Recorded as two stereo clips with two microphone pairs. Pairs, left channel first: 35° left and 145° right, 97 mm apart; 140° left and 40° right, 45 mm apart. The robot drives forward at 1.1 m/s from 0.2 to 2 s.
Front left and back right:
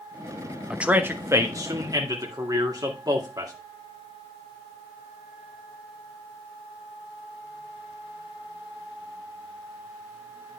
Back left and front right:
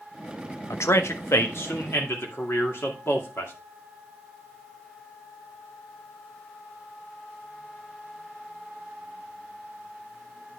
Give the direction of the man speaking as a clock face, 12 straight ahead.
8 o'clock.